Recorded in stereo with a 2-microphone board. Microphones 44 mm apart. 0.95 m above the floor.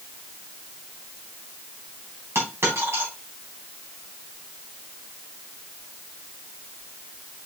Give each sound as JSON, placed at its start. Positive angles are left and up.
{"t": 2.4, "sound": "a dropped coin", "side_deg": -75, "distance_m": 3.5}